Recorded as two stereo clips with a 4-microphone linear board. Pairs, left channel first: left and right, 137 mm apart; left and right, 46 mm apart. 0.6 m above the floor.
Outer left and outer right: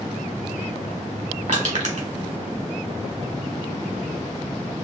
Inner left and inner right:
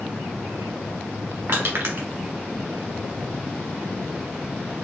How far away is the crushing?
About 1.7 m.